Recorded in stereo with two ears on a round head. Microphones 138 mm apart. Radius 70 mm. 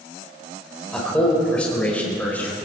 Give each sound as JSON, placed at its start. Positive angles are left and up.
{"t": 0.9, "sound": "a man speaking", "side_deg": 5, "distance_m": 5.0}